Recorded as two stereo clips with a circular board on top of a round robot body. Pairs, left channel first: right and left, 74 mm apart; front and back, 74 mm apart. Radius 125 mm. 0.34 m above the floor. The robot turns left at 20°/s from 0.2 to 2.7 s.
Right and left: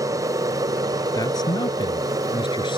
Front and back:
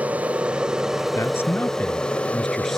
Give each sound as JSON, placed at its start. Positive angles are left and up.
{"t": 0.0, "sound": "an aircraft", "azimuth_deg": 115}
{"t": 1.1, "sound": "a man speaking", "azimuth_deg": -55}